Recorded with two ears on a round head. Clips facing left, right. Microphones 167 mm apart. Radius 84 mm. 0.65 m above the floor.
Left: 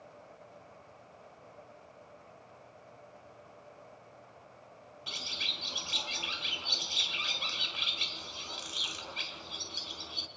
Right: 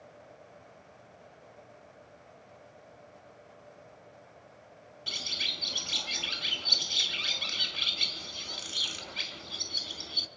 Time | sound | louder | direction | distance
5.1 | a bird | right 2 dB | 20° right (ahead or behind) | 1.2 m